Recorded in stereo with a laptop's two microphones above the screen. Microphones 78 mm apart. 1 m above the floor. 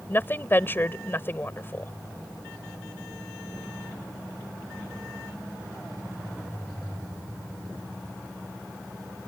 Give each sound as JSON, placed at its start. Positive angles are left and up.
{"t": 0.1, "sound": "a woman speaking", "side_deg": 30}